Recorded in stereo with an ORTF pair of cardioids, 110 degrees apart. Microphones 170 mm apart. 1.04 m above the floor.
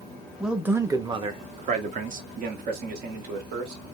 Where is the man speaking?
5° right, 1.0 m; by 3.8 s 70° right, 2 m.